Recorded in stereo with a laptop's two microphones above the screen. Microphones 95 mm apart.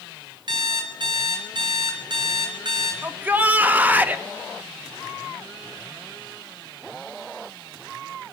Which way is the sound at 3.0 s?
20° right (ahead or behind).